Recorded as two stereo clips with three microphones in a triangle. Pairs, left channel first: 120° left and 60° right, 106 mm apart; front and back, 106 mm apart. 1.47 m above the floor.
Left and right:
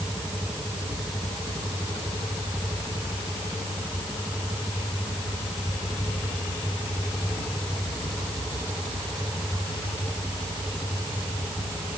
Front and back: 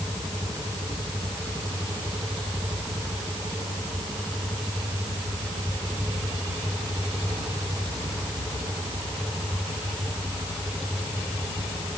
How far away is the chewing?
No chewing in this recording.